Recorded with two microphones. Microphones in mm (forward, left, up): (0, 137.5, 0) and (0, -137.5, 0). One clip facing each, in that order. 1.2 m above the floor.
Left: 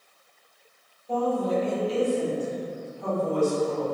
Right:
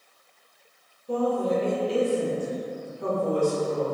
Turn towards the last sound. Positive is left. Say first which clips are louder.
# right 1 dB
turn(degrees=-65)  # may be behind; listen again after turning